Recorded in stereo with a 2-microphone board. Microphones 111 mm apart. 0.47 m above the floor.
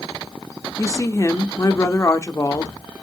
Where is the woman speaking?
30° left (ahead or behind), 0.8 m.